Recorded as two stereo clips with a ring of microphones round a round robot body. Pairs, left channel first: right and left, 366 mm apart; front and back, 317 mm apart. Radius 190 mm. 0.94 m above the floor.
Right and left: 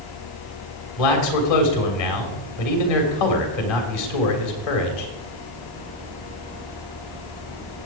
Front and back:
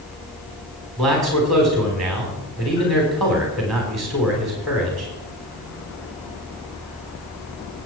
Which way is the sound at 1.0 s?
90° right.